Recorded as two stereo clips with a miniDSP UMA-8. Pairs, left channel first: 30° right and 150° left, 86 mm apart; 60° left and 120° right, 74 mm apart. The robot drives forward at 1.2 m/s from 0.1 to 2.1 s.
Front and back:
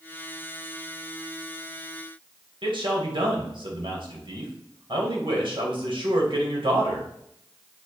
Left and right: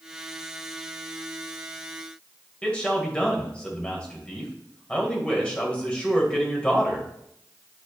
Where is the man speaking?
135° left, 2.5 m.